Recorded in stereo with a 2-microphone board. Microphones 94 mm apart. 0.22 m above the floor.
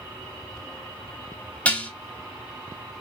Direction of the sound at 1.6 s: 15° left (ahead or behind).